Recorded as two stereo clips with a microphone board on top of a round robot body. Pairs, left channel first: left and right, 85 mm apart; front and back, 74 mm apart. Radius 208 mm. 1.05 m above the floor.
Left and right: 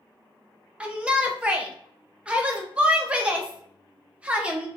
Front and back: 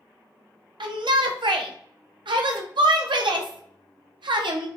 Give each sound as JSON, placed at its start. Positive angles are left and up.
{"t": 0.8, "sound": "a shout", "azimuth_deg": -165, "distance_m": 0.6}